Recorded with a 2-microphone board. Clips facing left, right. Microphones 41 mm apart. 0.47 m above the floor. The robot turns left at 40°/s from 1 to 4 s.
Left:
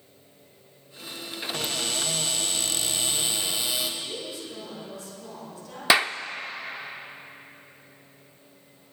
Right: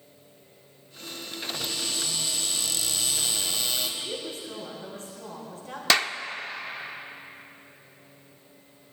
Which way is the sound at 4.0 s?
45° right (ahead or behind).